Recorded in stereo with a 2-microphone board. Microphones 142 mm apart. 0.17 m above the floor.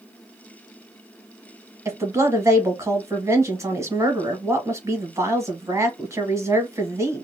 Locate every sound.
1.9 s a woman speaking: 20° right (ahead or behind), 1.0 m